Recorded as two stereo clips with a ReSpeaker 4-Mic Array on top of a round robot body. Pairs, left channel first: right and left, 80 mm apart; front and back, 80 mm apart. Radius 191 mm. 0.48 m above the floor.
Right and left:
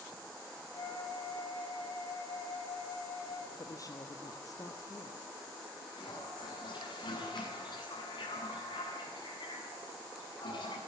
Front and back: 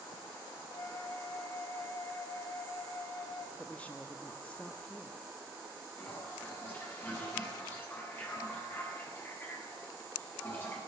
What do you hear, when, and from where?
0.7 s a flute: 50° right, 4 m
3.6 s a woman speaking: 70° right, 1.8 m
6.0 s a toilet flushing: 65° right, 8 m